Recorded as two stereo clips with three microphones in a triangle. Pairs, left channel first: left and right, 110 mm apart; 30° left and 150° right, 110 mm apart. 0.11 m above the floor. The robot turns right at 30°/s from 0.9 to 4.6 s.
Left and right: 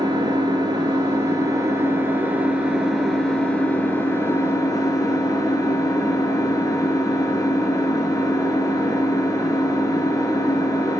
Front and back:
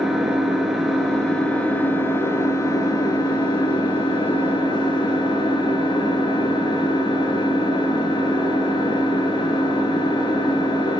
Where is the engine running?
65° right, 1.0 m; by 11.0 s 45° left, 1.0 m.